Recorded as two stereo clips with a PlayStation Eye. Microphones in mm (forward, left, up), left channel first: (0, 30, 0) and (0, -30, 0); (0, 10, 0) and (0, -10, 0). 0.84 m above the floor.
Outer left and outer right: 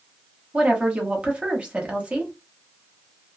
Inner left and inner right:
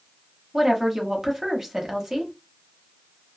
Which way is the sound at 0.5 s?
20° right (ahead or behind).